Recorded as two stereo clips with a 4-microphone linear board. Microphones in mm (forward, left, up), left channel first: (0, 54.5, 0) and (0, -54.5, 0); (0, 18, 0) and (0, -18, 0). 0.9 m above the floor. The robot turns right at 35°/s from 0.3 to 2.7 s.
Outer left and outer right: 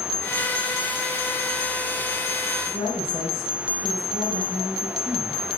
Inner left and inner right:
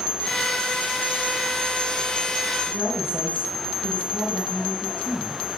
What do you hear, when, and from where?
2.7 s a woman speaking: 30° left (ahead or behind), 5.5 m